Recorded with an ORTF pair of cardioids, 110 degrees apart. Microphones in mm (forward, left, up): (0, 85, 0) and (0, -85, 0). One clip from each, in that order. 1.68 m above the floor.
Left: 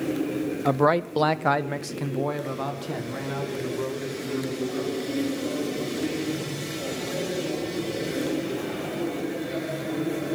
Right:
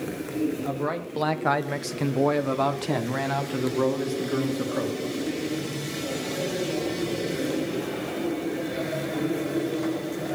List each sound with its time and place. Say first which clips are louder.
0.7 s a man speaking: left 8 dB; 55° left, 0.7 m; by 5.0 s 50° right, 2.5 m